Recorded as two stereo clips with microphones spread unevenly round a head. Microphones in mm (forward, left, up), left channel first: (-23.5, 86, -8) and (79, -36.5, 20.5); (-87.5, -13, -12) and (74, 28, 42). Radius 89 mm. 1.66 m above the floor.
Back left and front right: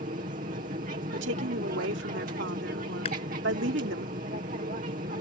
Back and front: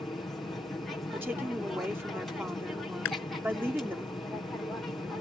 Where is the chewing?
165° right.